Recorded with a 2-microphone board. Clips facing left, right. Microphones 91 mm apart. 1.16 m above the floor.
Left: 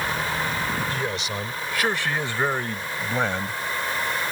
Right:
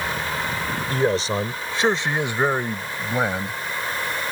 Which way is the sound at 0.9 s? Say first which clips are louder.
Right 7 dB; 35° right (ahead or behind).